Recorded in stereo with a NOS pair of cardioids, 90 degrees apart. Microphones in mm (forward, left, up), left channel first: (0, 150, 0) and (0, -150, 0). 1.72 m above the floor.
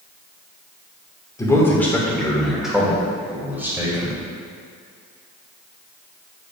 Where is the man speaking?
10° left, 2.0 m; by 4.2 s 10° right, 3.5 m.